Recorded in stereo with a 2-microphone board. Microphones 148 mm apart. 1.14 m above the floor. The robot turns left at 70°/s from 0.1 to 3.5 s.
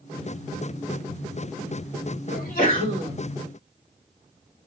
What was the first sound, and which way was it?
A sneeze, 90° left.